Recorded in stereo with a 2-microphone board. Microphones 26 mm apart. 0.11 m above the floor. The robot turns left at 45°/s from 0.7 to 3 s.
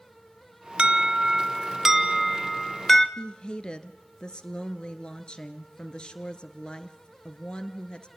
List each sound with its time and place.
0.8 s an alarm: 110° right, 0.9 m; by 3.1 s 155° left, 0.9 m
3.2 s a woman speaking: 35° left (ahead or behind), 1.6 m